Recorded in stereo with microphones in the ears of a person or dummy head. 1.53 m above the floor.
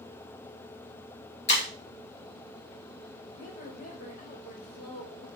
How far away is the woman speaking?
About 3.5 m.